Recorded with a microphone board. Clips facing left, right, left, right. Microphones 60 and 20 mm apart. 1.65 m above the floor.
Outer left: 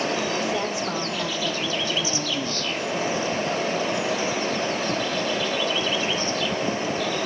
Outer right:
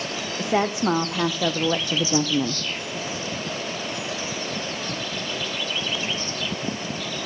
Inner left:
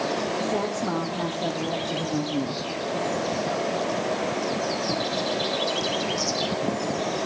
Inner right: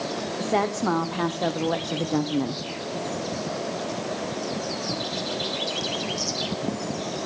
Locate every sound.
0.4 s a woman speaking: 60° right (ahead or behind), 1.8 m; by 2.6 s 70° right (ahead or behind), 0.8 m